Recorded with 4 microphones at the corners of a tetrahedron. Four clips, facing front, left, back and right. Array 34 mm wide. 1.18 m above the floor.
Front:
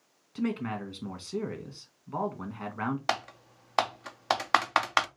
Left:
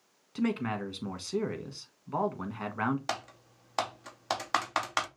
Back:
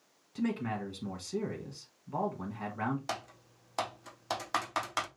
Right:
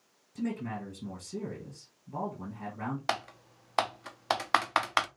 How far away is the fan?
No fan in this recording.